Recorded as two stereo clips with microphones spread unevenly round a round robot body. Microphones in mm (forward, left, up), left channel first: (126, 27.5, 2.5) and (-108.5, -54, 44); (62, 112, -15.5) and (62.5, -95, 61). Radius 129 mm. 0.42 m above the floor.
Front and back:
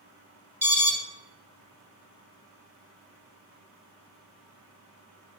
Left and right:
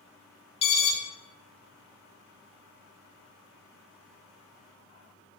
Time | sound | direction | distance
0.6 | an alarm | 110° left | 0.6 m